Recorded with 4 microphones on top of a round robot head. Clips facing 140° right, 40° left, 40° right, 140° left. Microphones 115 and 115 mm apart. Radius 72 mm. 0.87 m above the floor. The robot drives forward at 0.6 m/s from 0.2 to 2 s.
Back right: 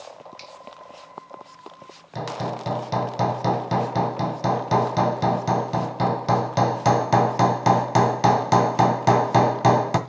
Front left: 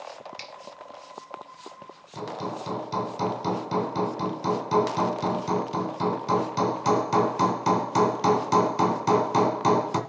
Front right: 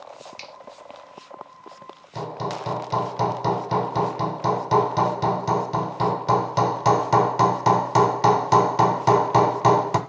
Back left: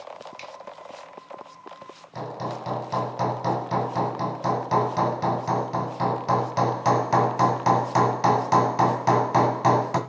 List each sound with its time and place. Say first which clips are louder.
0.4 s a finger snap: even, back left 2 dB; 15° left, 1.0 m
2.1 s hammering: back right 4 dB, front right 2 dB; 110° right, 1.9 m